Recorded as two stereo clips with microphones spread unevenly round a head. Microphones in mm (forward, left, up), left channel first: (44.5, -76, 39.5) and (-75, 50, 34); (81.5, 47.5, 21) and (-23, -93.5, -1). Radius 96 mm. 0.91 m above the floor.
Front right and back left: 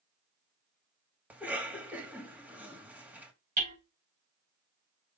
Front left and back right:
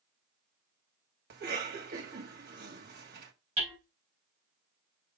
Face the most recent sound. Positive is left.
turn(degrees=170)